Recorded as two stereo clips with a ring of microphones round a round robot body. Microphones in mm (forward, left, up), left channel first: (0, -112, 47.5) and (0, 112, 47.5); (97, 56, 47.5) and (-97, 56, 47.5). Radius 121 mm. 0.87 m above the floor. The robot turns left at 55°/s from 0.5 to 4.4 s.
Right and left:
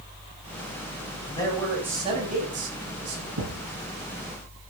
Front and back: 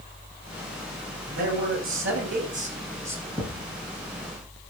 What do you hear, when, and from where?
1.3 s a man speaking: 160° right, 8 m; by 3.3 s 95° left, 8 m
3.4 s a thud: 95° left, 8 m; by 4.7 s 40° left, 8 m